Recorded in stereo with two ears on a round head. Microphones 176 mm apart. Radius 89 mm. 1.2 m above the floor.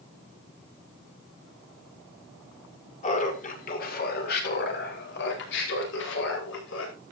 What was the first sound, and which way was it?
Laughter, 40° left (ahead or behind).